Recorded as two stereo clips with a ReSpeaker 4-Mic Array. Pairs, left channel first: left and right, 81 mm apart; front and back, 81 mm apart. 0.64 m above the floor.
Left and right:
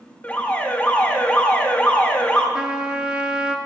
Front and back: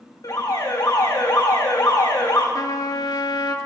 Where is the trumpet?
15° right, 0.9 m.